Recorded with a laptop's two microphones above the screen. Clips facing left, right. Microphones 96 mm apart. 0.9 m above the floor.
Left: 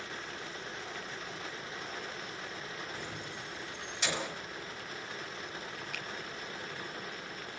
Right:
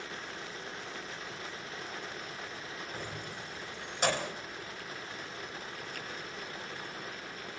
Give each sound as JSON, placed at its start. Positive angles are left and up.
{"t": 2.9, "sound": "keys jangling", "side_deg": -45, "distance_m": 4.5}
{"t": 5.9, "sound": "a finger snap", "side_deg": 85, "distance_m": 3.5}